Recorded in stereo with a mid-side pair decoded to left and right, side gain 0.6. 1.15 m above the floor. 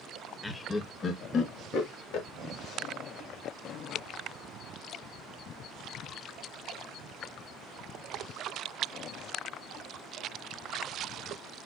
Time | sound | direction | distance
0.4 | laughter | 10° left | 1.1 m